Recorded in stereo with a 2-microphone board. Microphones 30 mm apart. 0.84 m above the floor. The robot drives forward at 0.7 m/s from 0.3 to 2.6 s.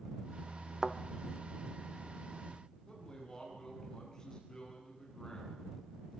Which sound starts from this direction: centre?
A thud, at 0.8 s.